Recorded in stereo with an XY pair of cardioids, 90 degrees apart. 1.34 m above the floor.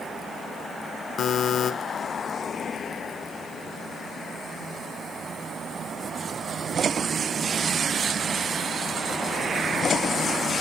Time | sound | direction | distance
1.2 | a buzzer | 65° left | 0.8 m